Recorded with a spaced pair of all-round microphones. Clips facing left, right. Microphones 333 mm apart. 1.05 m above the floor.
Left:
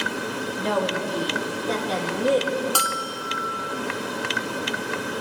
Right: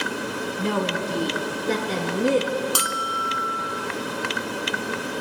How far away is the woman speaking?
About 1.6 m.